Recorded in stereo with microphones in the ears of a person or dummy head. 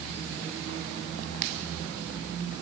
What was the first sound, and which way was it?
Only background noise.